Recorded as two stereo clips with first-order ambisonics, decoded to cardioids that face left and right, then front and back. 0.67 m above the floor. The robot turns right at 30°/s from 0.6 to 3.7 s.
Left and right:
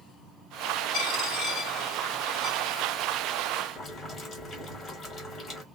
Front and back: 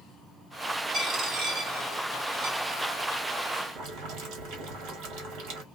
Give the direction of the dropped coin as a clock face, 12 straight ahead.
8 o'clock.